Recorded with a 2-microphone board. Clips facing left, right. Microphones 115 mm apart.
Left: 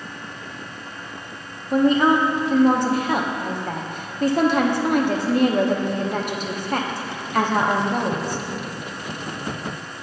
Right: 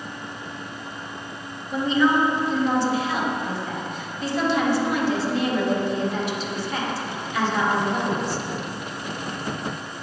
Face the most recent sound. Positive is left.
turn(degrees=50)  # may be behind; listen again after turning